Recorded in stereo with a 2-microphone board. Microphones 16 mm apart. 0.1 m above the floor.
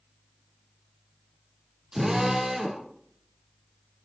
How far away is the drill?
About 3.5 m.